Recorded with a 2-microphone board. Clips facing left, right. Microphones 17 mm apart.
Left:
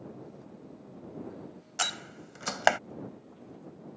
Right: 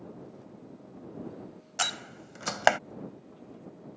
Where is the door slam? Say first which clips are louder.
Right 1 dB; centre (ahead or behind).